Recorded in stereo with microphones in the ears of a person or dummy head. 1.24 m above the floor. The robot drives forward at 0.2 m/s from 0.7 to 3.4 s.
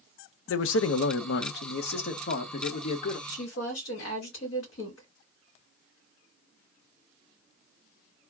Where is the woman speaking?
65° left (ahead or behind), 2.5 m.